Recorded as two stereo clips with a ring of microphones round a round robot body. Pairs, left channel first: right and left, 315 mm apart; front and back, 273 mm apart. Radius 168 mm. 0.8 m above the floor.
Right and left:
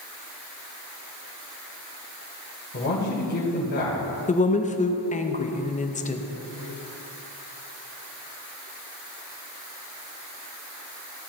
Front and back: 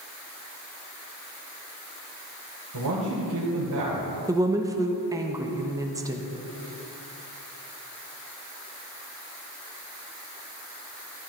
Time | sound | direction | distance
2.7 | a man speaking | 150° right | 3 m
4.3 | a woman speaking | 120° right | 1.0 m